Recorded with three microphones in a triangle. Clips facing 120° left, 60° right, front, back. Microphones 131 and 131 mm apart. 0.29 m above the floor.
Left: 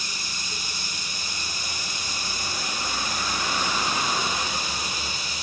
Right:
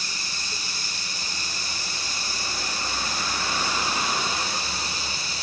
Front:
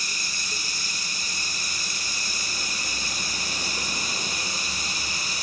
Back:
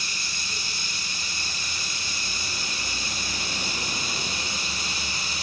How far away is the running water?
About 6.5 m.